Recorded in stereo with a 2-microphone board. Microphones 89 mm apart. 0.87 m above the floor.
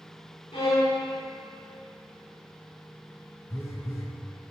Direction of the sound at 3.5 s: 25° left (ahead or behind).